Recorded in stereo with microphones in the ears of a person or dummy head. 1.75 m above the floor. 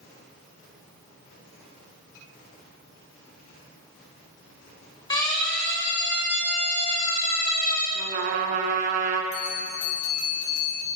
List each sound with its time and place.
5.1 s a siren: 30° left (ahead or behind), 7.5 m; by 7.8 s 50° left (ahead or behind), 10 m
8.0 s a trumpet: 40° right (ahead or behind), 4 m
9.3 s a bell: 85° left, 8 m